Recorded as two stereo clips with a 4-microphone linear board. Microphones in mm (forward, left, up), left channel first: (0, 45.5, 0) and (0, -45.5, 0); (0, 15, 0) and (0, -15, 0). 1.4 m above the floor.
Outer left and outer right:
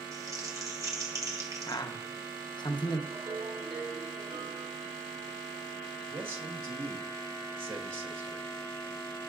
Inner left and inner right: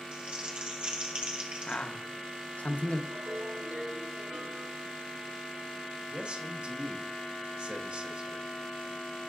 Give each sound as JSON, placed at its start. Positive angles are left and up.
{"t": 0.1, "sound": "crumpling", "side_deg": -35, "distance_m": 1.4}
{"t": 1.7, "sound": "a man speaking", "side_deg": 55, "distance_m": 1.0}
{"t": 3.1, "sound": "a ringtone", "side_deg": -75, "distance_m": 3.5}
{"t": 6.1, "sound": "a man speaking", "side_deg": -60, "distance_m": 1.6}